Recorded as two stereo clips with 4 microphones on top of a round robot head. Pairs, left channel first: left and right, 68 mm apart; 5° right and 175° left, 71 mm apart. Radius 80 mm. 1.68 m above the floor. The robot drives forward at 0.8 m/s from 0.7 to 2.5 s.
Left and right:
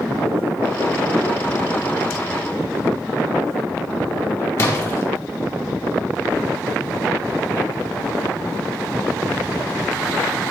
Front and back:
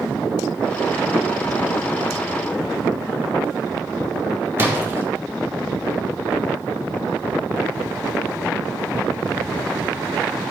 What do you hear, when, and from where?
4.6 s a splash: 130° left, 1.3 m